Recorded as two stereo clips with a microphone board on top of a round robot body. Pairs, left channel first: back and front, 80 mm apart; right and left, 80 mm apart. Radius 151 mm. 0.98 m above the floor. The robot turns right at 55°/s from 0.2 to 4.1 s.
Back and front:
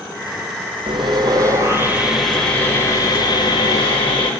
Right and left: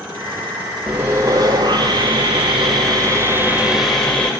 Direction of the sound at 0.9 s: 15° left.